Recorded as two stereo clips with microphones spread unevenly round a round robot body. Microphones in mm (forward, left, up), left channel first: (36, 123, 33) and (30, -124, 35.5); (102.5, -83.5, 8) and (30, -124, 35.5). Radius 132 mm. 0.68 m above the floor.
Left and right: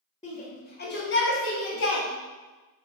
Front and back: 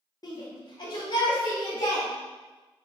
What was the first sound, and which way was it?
A shout, 25° left.